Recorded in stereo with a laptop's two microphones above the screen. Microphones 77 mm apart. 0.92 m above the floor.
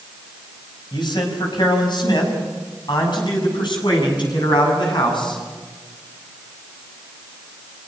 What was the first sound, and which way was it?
A man speaking, 70° left (ahead or behind).